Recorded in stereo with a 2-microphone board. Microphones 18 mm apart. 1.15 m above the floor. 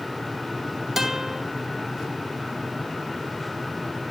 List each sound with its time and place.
1.0 s a guitar: 20° right (ahead or behind), 2.5 m